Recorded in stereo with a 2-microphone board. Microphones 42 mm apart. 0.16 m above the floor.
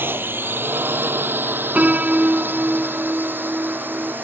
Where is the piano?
35° right (ahead or behind).